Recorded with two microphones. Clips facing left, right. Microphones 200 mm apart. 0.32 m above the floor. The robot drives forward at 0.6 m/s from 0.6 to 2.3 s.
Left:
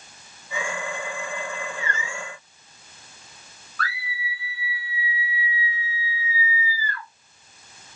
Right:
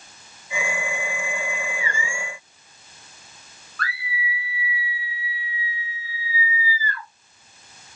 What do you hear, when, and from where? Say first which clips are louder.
3.8 s a scream: right 1 dB; 5° left (ahead or behind), 1.9 m